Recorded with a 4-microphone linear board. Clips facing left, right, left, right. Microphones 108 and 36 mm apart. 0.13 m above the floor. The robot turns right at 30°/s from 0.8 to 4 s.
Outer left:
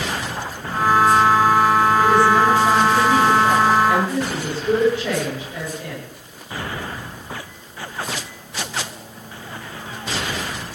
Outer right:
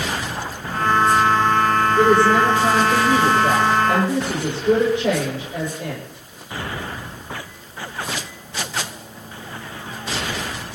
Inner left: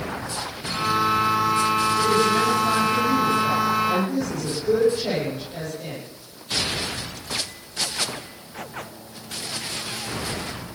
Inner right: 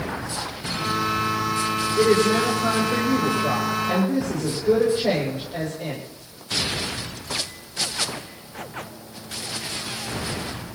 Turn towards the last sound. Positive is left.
turn(degrees=-20)